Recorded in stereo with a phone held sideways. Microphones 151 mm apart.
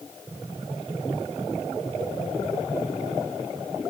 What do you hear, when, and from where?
Only background noise.